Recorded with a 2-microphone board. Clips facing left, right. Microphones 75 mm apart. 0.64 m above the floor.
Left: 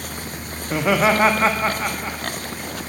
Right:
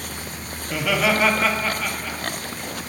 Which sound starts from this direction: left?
Laughter, at 0.6 s.